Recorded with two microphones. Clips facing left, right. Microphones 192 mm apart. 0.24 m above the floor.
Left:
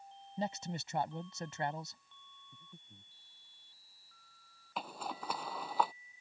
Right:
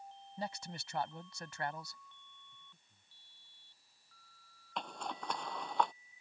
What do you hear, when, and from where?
0.4 s a man speaking: 25° left (ahead or behind)
2.5 s breathing: 60° left (ahead or behind)
4.8 s a zipper: 5° left (ahead or behind)